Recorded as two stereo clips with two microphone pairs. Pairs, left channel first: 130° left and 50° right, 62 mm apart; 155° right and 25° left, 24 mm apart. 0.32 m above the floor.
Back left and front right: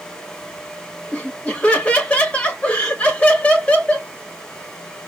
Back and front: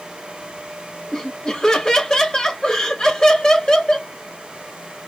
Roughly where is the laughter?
Behind.